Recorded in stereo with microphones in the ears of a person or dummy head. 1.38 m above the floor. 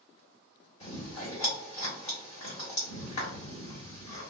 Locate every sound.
0.8 s chewing: 35° left (ahead or behind), 1.5 m